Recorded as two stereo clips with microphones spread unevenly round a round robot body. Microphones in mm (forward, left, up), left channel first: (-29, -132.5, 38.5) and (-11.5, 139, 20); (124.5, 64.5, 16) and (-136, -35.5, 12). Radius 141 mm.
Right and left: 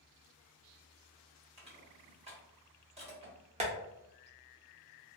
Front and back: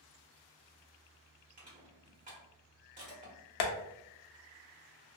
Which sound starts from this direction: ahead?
Tapping, at 3.6 s.